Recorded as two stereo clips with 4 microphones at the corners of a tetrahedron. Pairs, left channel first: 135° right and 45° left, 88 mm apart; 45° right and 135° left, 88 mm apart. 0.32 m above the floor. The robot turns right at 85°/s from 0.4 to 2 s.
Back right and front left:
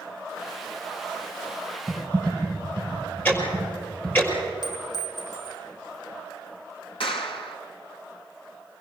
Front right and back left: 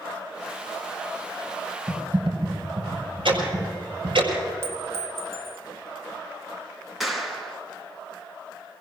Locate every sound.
1.9 s typing on a keyboard: 135° left, 4 m; by 4.2 s 145° left, 4 m
3.2 s ticking: 155° left, 5.5 m
4.6 s a clink: 170° right, 1.6 m
7.0 s a clap: 135° right, 2.5 m